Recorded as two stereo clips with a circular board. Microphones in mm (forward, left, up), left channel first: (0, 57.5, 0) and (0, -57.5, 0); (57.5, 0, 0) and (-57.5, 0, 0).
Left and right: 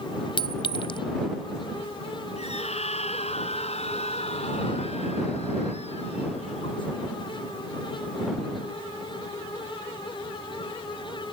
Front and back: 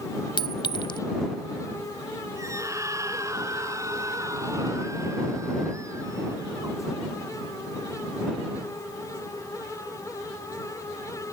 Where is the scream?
115° left.